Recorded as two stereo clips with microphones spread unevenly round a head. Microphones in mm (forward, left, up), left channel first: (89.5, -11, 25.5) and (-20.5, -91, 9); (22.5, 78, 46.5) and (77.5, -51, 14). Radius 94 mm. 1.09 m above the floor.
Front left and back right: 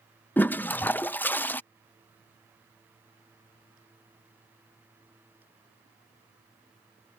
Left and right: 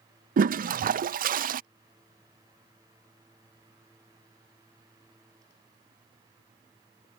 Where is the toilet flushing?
40° right.